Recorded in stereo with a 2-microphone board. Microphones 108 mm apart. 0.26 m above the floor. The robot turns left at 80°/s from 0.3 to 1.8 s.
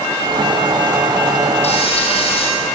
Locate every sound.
1.6 s frying: 80° left, 5.5 m; by 2.5 s 65° left (ahead or behind), 5.5 m